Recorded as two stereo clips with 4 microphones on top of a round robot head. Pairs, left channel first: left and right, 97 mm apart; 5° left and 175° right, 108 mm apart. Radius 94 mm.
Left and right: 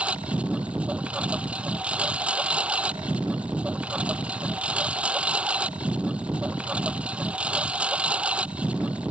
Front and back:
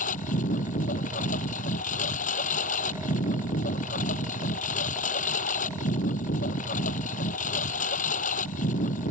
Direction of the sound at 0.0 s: 10° right.